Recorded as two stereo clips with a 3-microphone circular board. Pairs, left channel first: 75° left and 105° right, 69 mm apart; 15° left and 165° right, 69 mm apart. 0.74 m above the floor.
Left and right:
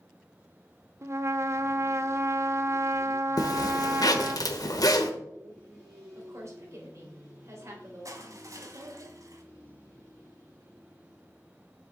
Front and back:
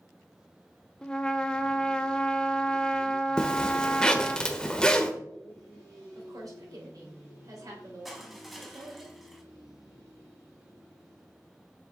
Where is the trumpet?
60° right, 0.7 m.